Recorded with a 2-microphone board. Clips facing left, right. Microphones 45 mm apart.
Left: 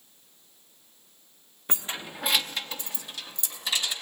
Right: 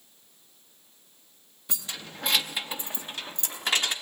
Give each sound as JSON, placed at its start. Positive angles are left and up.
{"t": 1.7, "sound": "keys jangling", "side_deg": 35, "distance_m": 0.6}